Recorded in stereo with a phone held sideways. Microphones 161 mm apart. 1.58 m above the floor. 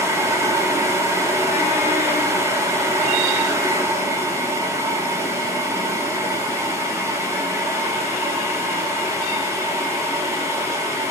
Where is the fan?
15° right (ahead or behind), 1.8 m.